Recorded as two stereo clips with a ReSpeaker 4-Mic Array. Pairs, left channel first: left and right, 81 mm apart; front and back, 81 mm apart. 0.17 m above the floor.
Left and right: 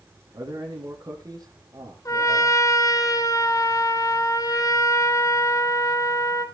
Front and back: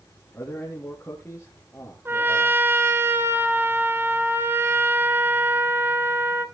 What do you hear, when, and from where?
0.3 s a man speaking: 65° right, 3.5 m
2.0 s a trumpet: 125° left, 1.4 m